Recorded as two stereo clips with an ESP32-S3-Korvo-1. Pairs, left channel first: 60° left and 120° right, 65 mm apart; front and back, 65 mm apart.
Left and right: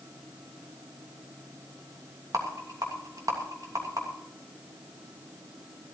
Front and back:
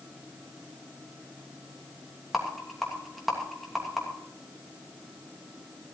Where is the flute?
No flute in this recording.